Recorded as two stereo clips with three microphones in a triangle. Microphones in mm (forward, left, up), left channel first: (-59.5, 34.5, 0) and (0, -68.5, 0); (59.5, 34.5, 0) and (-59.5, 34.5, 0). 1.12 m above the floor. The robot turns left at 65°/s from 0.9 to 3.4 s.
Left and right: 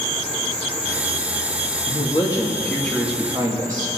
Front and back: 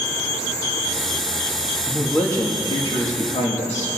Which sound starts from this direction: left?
A man speaking, at 1.9 s.